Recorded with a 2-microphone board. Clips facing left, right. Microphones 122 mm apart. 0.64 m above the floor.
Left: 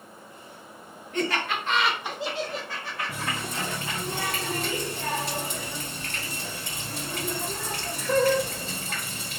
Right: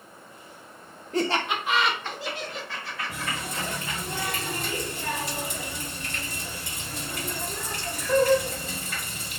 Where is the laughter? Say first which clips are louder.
Right 2 dB; 35° right (ahead or behind), 0.6 m; by 4.0 s 65° left (ahead or behind), 1.3 m.